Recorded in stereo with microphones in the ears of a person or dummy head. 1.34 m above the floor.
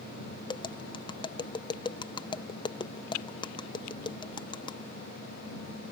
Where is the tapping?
20° left (ahead or behind).